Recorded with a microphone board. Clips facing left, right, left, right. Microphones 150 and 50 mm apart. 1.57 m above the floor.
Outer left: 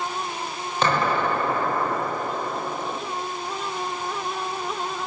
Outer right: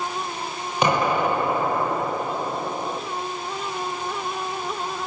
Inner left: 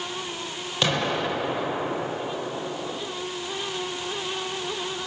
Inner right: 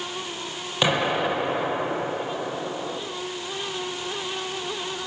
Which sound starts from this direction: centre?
An explosion, at 0.8 s.